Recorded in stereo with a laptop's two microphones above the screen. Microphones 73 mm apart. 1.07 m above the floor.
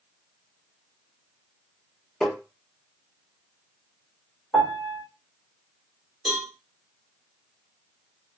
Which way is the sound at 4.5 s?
10° left (ahead or behind).